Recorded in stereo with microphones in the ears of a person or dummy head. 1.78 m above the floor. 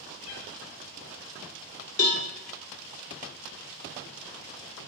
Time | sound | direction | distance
0.2 | a cat meowing | 40° left (ahead or behind) | 1.4 m
2.0 | a cowbell | 35° left (ahead or behind) | 1.1 m